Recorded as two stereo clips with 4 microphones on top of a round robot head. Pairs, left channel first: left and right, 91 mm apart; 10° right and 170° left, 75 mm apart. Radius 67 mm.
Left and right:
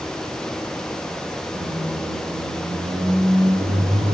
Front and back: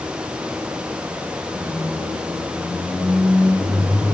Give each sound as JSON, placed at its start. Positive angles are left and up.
{"t": 1.5, "sound": "a squeak", "azimuth_deg": -95, "distance_m": 5.5}